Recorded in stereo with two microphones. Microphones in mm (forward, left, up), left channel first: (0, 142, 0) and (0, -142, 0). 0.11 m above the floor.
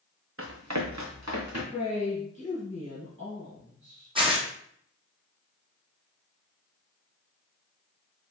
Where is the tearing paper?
20° right (ahead or behind), 1.2 m.